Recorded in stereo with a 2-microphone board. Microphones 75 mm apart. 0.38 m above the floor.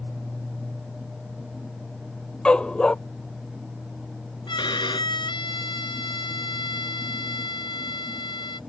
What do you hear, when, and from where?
2.5 s a dog barking: 10° left (ahead or behind)
4.5 s a violin: 75° left (ahead or behind)